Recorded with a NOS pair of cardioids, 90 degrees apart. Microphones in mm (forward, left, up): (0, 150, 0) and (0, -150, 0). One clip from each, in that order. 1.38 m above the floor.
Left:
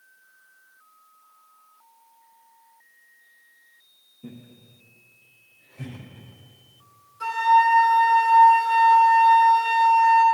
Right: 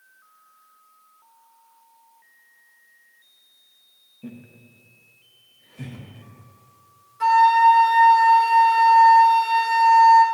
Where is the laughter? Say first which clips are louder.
Right 3 dB; 55° right, 1.5 m; by 6.1 s 20° right, 1.9 m.